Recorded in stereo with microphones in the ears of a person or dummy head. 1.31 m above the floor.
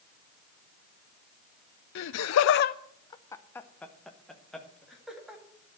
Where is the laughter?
60° left (ahead or behind), 0.6 m; by 5.4 s 5° right (ahead or behind), 2.5 m.